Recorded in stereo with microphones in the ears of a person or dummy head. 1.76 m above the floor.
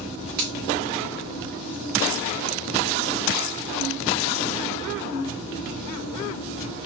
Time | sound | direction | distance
0.4 | a finger snap | 50° right (ahead or behind) | 1.7 m